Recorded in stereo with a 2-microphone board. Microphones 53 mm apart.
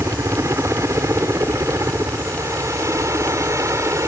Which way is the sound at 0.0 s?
75° right (ahead or behind).